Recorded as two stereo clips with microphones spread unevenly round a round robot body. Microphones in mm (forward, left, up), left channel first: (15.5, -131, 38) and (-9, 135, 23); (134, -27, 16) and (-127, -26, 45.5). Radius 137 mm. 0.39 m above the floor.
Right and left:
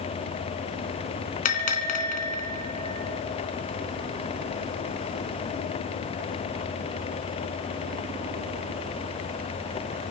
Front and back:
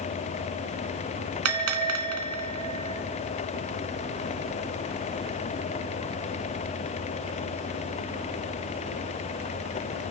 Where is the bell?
145° right, 3 m.